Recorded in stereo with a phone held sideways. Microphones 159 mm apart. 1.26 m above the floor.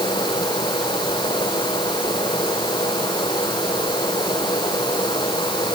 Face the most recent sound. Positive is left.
turn(degrees=25)  # may be behind; listen again after turning